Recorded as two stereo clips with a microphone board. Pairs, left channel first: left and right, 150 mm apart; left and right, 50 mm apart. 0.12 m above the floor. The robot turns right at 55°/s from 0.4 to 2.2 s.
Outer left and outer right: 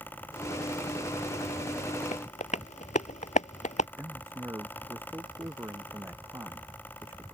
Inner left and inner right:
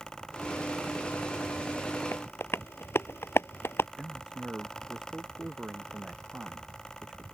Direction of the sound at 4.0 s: 15° right (ahead or behind).